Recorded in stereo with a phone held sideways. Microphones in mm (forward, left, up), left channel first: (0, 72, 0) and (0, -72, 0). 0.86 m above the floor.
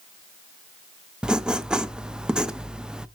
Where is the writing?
5° right (ahead or behind), 0.5 m.